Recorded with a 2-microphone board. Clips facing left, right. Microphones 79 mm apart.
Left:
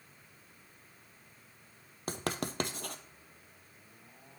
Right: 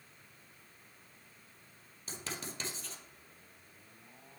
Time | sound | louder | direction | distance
2.1 | writing | left 8 dB | 65° left (ahead or behind) | 0.5 m